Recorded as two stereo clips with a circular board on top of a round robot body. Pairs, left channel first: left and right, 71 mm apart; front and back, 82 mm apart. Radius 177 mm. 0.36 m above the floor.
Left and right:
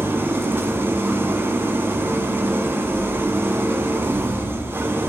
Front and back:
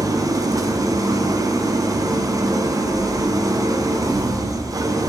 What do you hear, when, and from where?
0.0 s an engine running: 145° right, 0.9 m